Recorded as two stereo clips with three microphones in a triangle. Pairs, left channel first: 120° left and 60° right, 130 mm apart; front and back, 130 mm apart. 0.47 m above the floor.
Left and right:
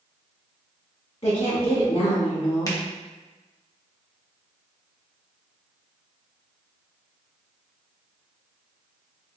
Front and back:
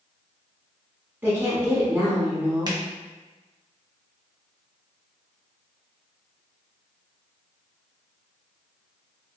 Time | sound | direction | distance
1.2 | a woman speaking | 110° left | 0.9 m
2.7 | a finger snap | 160° left | 0.7 m